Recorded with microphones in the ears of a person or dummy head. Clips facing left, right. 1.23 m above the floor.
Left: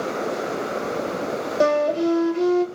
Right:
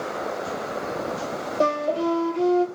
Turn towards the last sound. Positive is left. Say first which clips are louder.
# left 4 dB
turn(degrees=20)  # may be behind; listen again after turning